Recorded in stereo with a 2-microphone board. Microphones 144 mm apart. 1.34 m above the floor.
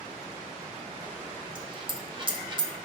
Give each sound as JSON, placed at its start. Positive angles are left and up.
{"t": 1.6, "sound": "a dropped coin", "side_deg": -35, "distance_m": 1.4}